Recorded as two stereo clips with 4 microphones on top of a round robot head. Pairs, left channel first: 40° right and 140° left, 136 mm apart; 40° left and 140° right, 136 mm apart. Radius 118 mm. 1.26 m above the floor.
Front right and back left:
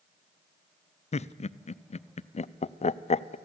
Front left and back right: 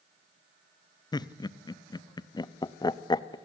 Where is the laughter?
15° right, 0.7 m.